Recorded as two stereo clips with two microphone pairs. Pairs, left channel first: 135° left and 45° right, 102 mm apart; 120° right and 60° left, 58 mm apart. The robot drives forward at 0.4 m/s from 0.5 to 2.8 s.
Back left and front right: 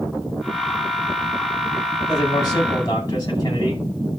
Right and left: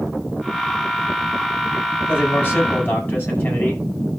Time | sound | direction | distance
2.1 | a man speaking | straight behind | 9.5 m